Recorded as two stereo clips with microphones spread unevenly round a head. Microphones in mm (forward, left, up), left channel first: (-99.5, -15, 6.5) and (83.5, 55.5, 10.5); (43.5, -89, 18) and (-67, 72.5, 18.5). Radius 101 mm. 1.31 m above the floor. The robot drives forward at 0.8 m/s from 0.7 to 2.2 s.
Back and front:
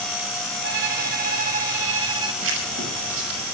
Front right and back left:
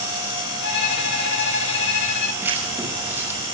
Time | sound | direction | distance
0.6 | a violin | 20° right | 2.5 m
2.4 | writing | 45° left | 6.5 m